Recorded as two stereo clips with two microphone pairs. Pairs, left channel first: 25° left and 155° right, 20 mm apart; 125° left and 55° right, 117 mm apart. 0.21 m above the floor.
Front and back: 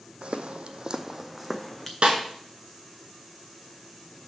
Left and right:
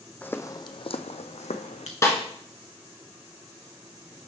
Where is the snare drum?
175° right, 1.6 m.